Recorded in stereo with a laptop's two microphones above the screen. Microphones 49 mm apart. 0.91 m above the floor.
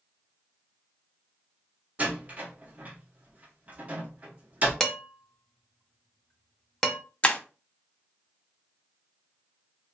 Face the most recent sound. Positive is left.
turn(degrees=25)  # may be behind; listen again after turning